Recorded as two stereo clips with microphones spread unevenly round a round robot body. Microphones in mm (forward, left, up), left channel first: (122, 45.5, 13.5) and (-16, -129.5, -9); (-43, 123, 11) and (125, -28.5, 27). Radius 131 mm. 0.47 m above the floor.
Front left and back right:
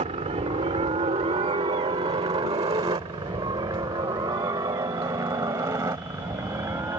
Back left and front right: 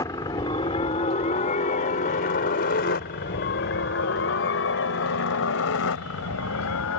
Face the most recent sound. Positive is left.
turn(degrees=155)